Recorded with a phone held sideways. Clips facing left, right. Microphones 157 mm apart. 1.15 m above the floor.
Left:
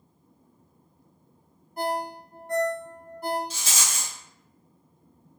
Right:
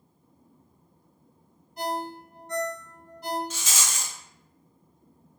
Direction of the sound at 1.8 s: 55° left (ahead or behind).